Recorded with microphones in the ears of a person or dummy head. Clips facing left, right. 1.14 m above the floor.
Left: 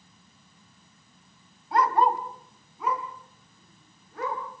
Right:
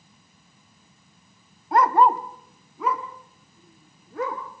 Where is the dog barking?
45° right (ahead or behind), 1.6 m; by 4.4 s 65° right (ahead or behind), 5.5 m.